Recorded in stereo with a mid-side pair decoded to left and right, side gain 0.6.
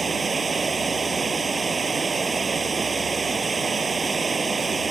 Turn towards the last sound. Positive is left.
turn(degrees=-25)